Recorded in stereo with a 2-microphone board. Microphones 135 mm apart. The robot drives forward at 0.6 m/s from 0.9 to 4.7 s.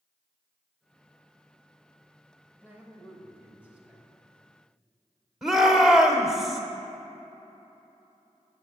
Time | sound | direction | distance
2.6 | a man speaking | 15° right (ahead or behind) | 1.8 m
5.4 | a shout | centre (ahead or behind) | 1.0 m